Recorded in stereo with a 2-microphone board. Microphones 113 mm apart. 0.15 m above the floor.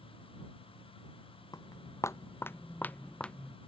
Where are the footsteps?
30° left (ahead or behind); by 3.5 s 5° left (ahead or behind).